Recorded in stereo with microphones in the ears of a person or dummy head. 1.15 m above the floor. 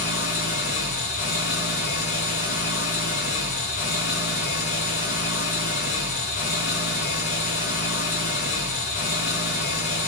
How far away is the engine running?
About 1.7 m.